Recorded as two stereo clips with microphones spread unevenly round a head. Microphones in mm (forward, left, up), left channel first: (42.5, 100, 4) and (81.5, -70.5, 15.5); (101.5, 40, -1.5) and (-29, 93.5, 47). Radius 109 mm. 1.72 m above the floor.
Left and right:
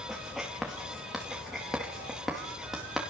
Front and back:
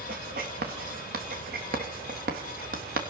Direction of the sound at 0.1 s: 165° right.